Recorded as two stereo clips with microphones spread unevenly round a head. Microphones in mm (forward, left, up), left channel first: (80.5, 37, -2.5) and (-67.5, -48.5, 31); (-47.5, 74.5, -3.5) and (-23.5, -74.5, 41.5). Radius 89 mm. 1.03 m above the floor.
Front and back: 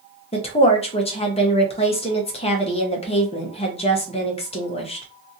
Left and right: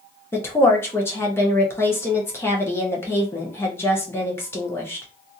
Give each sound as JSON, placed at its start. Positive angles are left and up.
{"t": 0.3, "sound": "a woman speaking", "azimuth_deg": 50, "distance_m": 0.8}